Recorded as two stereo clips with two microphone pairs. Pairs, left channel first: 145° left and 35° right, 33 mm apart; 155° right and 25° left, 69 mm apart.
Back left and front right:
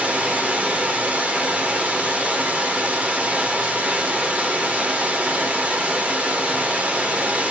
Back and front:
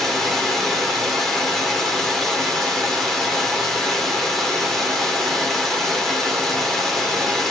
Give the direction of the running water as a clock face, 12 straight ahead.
2 o'clock.